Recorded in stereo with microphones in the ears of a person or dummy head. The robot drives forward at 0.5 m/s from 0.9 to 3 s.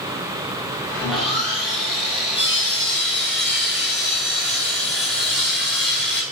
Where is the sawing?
Centre (ahead or behind), 3 m.